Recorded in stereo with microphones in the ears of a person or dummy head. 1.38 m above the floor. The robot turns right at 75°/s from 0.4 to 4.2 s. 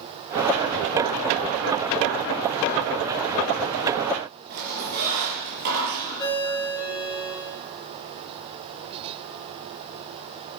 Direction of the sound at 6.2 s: 25° left (ahead or behind).